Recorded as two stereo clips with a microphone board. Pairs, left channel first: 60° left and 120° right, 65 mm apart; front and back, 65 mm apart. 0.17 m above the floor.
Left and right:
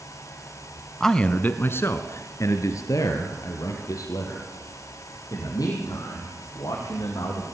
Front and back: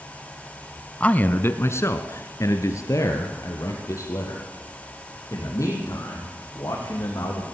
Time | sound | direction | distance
1.0 | a man speaking | 20° right | 1.0 m